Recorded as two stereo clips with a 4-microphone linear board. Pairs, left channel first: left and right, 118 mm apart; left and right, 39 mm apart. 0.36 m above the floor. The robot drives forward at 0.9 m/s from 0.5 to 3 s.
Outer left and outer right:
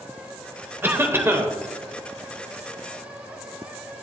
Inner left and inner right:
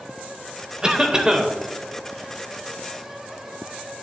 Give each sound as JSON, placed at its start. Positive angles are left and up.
{"t": 0.8, "sound": "a cough", "side_deg": -20, "distance_m": 1.4}